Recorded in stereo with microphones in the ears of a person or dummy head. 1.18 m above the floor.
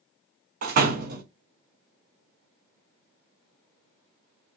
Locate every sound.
0.6 s a door slam: 50° right (ahead or behind), 0.7 m